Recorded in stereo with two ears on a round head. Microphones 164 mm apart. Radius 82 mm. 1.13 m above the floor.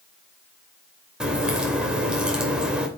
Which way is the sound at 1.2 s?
5° right (ahead or behind).